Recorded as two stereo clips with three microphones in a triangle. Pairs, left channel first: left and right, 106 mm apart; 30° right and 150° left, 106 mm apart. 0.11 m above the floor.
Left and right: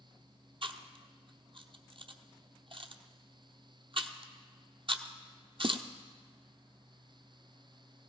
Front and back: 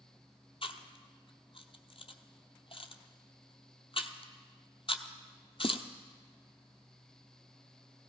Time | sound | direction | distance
0.6 | chewing | 60° right | 0.8 m